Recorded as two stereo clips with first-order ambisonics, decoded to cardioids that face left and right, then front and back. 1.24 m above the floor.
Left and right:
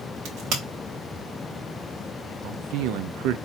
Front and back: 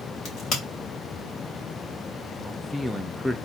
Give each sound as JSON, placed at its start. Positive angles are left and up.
{"t": 0.2, "sound": "a crack", "azimuth_deg": -50, "distance_m": 2.5}
{"t": 2.4, "sound": "a man speaking", "azimuth_deg": -85, "distance_m": 0.5}